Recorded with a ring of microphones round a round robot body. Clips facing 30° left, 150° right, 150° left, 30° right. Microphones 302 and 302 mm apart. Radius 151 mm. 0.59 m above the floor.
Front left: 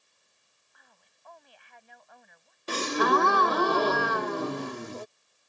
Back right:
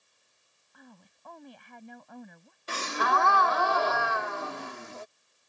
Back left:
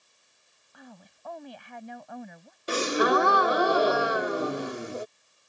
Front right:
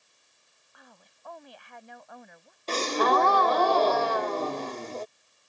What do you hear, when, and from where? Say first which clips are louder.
0.7 s a woman speaking: back right 15 dB, back left 9 dB; 165° left
2.7 s a gasp: front left 7 dB, back left 2 dB; 75° left